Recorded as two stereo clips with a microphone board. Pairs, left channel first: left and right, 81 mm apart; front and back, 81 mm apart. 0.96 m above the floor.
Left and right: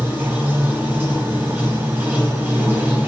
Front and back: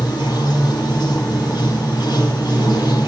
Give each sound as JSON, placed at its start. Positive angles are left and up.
{"t": 0.0, "sound": "running water", "azimuth_deg": -25, "distance_m": 4.5}